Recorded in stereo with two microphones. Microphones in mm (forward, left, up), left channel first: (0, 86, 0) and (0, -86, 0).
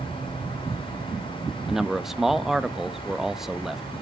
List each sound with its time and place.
1.7 s a man speaking: centre (ahead or behind), 0.6 m